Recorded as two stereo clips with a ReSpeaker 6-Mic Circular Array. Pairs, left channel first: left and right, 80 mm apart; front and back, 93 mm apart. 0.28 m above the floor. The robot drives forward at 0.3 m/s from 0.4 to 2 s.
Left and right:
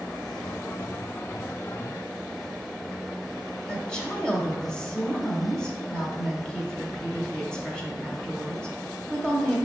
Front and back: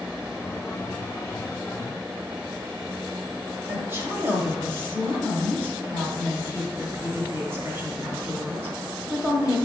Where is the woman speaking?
160° left, 0.9 m.